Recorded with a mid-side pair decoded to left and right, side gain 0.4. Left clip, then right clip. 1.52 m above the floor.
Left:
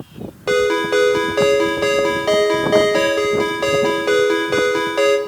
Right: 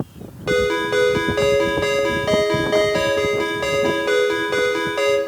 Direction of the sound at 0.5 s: 30° left.